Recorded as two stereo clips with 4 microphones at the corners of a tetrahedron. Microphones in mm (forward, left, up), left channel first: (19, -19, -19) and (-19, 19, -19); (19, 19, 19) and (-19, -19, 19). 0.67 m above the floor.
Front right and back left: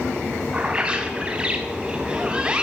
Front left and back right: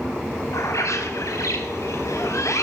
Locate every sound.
0.5 s a bird: 65° left, 4 m